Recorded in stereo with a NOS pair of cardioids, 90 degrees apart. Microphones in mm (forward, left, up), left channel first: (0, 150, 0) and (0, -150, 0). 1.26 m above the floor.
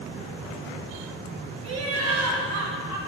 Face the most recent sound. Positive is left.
turn(degrees=-65)